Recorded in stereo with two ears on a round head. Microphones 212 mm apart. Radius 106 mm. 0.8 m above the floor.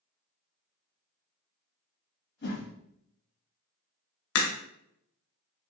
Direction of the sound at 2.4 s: 45° left (ahead or behind).